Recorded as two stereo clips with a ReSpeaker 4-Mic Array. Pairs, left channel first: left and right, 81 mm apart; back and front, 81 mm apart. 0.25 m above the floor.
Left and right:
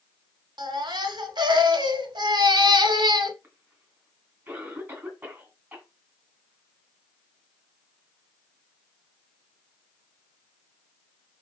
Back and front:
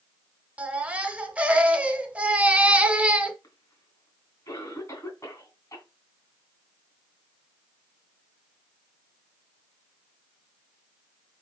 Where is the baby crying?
70° right, 0.7 m.